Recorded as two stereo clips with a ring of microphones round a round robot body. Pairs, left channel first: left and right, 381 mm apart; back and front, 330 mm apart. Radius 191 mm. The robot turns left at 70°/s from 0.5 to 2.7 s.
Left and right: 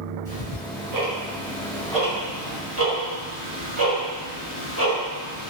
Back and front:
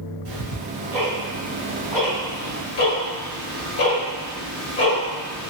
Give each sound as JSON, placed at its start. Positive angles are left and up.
{"t": 0.2, "sound": "ticking", "azimuth_deg": 5, "distance_m": 1.7}